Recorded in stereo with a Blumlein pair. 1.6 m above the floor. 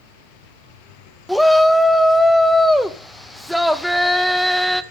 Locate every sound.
1.3 s a shout: straight ahead, 0.9 m